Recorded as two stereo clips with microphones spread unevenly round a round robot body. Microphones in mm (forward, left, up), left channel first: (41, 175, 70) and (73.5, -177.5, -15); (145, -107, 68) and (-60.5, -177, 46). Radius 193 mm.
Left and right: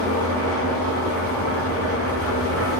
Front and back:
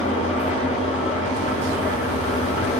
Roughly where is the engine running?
Ahead right.